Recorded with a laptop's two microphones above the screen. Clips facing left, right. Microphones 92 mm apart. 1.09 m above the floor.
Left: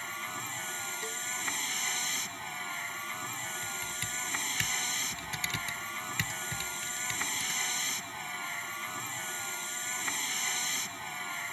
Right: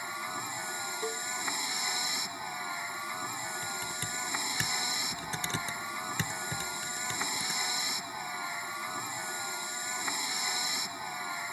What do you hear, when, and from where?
0.0 s a vehicle: 15° right (ahead or behind)
1.0 s a cowbell: 30° right (ahead or behind)
3.6 s typing on a keyboard: 35° right (ahead or behind)